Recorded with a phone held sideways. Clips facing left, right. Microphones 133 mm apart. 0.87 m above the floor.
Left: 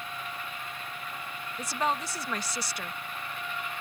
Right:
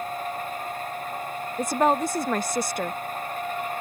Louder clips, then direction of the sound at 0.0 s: Right 9 dB; 45° right (ahead or behind).